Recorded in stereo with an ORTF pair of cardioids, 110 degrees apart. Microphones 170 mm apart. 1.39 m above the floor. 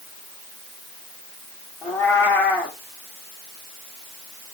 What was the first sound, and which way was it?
A cat meowing, 10° left.